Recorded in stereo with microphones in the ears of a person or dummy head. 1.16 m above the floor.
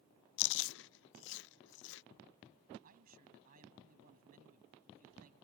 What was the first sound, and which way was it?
Chewing, 65° left (ahead or behind).